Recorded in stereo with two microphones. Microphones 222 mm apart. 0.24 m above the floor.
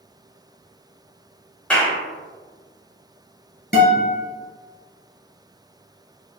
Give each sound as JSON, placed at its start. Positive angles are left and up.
{"t": 1.7, "sound": "a clap", "side_deg": 5, "distance_m": 1.0}
{"t": 3.7, "sound": "a guitar", "side_deg": 50, "distance_m": 1.4}